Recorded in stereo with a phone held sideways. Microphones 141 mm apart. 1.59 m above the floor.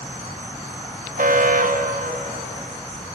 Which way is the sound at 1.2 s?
75° right (ahead or behind).